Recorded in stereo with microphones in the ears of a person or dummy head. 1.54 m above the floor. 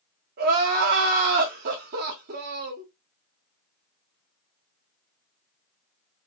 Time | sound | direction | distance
0.4 | crying | 55° right (ahead or behind) | 1.0 m